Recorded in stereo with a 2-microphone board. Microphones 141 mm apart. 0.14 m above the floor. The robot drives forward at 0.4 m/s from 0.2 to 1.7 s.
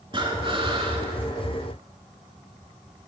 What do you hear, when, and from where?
0.1 s breathing: 35° right (ahead or behind), 0.8 m; by 1.1 s 40° right (ahead or behind), 0.7 m